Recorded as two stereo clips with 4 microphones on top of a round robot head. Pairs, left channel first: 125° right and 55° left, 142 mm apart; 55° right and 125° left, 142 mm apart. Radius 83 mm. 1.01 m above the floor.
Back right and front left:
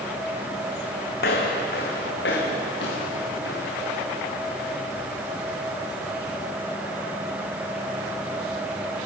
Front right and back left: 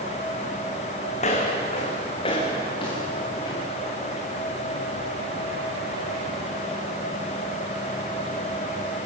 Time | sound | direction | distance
1.2 | footsteps | 100° right | 3 m